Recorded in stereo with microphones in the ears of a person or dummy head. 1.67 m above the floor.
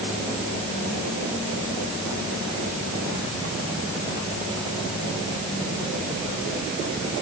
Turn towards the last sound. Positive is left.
No sound to turn to.